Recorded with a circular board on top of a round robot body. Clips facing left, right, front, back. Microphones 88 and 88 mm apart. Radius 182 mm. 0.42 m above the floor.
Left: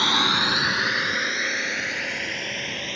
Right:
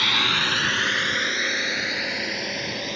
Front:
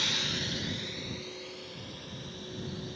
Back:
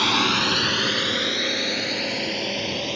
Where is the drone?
155° left; by 3.0 s 170° right.